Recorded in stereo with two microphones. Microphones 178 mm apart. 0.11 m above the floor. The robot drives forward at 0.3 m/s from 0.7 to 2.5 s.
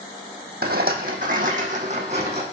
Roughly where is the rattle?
Right.